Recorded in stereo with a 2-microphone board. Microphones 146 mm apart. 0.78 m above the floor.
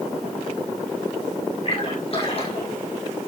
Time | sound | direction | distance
1.6 | a splash | 45° left (ahead or behind) | 8.5 m